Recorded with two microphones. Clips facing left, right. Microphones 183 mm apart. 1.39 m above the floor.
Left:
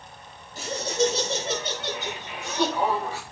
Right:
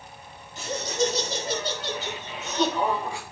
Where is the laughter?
35° left (ahead or behind), 6.5 m; by 3.2 s centre (ahead or behind), 5.5 m.